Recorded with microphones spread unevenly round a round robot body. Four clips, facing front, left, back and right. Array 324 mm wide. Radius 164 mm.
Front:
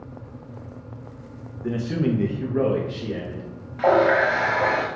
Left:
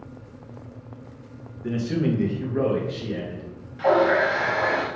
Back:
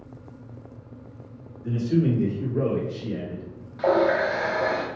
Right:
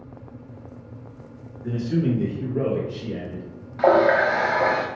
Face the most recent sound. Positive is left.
turn(degrees=-55)